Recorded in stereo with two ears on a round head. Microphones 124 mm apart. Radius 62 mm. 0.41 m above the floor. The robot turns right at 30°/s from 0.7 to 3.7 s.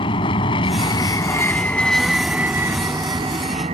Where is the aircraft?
140° left; by 3.7 s 130° right.